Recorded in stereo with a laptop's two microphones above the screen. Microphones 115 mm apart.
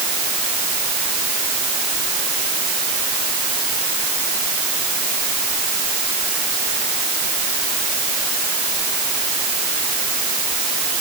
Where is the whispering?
I don't hear whispering.